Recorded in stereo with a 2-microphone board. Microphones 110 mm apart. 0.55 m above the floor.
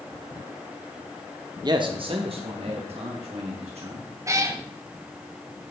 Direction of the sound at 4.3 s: 30° right (ahead or behind).